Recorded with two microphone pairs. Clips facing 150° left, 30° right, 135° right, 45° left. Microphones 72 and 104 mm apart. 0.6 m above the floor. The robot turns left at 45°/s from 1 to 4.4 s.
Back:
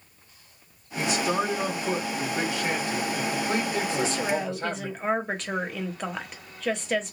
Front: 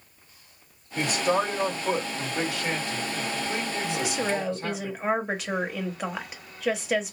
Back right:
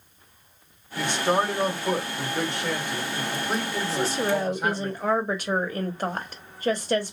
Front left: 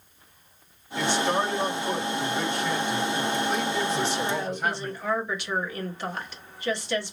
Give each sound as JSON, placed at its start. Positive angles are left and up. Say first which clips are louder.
{"t": 1.0, "sound": "a man speaking", "louder": "front 1 dB, back right 1 dB", "azimuth_deg": -60, "distance_m": 1.9}
{"t": 3.9, "sound": "a woman speaking", "louder": "front 2 dB, back right 2 dB", "azimuth_deg": -90, "distance_m": 0.9}